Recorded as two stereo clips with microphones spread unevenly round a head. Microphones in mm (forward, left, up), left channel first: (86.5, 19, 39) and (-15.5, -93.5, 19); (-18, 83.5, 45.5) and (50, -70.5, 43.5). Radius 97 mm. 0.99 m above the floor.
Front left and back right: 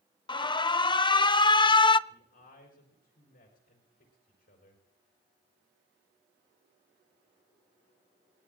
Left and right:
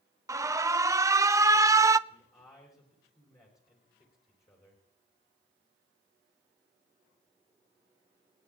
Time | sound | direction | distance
0.3 | an alarm | 5° right | 0.5 m
2.1 | a man speaking | 45° left | 4 m